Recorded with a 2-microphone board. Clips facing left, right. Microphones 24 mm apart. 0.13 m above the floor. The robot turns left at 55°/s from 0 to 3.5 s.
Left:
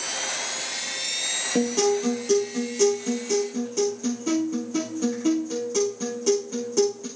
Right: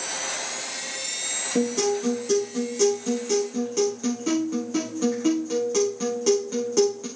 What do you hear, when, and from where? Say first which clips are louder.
1.6 s a guitar: left 1 dB; 70° left, 7.5 m; by 7.1 s 35° right, 7.5 m